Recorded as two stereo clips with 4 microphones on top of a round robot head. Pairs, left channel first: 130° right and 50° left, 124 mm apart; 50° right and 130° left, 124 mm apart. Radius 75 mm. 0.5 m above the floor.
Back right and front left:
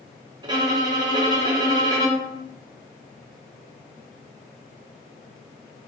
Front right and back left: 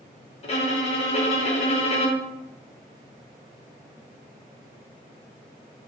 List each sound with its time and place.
0.4 s a violin: 10° right, 0.6 m